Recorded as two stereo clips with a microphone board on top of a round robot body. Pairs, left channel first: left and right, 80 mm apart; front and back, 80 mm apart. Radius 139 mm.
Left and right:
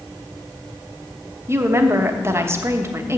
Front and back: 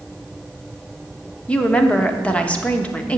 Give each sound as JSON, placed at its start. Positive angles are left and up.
{"t": 1.5, "sound": "a woman speaking", "azimuth_deg": -65, "distance_m": 1.3}